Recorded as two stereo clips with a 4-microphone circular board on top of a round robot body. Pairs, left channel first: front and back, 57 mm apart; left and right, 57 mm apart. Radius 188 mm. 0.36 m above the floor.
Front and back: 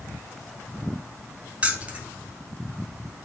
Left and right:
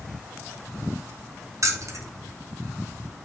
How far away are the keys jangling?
About 0.9 m.